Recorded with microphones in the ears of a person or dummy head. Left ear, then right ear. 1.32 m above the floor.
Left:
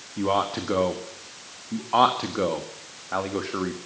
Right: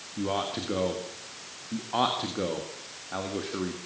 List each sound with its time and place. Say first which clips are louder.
0.2 s a man speaking: left 6 dB; 30° left (ahead or behind), 1.8 m